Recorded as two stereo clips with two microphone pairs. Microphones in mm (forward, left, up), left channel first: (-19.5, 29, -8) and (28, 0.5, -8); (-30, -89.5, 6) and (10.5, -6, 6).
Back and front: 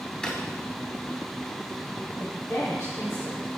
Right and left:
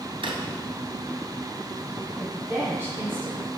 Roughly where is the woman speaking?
Behind left.